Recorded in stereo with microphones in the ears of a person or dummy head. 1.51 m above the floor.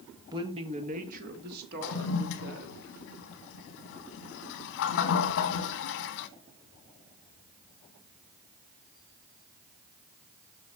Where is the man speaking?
15° right (ahead or behind), 1.5 m; by 2.8 s 60° right (ahead or behind), 3.5 m.